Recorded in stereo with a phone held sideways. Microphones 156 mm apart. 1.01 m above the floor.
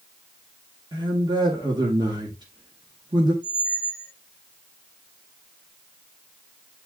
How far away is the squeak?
About 2.5 m.